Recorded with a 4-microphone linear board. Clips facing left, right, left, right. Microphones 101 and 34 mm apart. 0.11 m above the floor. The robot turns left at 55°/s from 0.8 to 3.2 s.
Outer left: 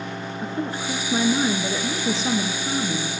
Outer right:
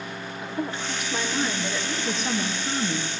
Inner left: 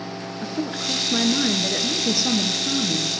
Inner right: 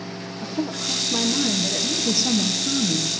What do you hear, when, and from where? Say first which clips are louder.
0.4 s a woman speaking: outer left 2 dB, even; 105° left, 1.4 m; by 3.1 s 20° right, 1.4 m